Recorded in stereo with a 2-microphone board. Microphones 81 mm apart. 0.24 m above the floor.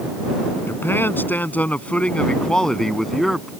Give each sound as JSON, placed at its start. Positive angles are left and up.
{"t": 0.7, "sound": "a man speaking", "side_deg": 30}